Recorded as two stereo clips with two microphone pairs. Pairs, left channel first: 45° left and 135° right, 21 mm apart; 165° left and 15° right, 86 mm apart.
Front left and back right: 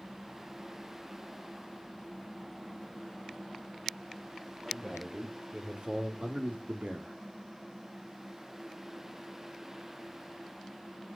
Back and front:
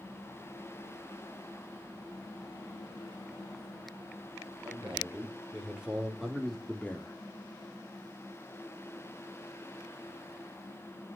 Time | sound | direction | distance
4.6 | a man speaking | 85° right | 4.5 m